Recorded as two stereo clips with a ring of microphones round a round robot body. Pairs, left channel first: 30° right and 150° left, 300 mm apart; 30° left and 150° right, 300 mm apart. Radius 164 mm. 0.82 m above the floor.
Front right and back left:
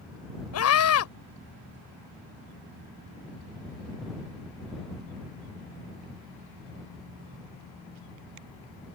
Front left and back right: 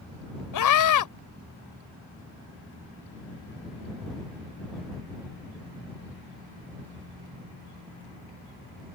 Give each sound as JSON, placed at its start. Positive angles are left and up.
{"t": 0.5, "sound": "a scream", "azimuth_deg": 10}